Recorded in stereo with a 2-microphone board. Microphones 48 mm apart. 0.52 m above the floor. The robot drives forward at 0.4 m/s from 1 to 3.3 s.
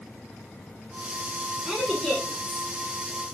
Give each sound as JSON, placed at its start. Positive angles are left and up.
{"t": 1.7, "sound": "a woman speaking", "side_deg": 5, "distance_m": 1.3}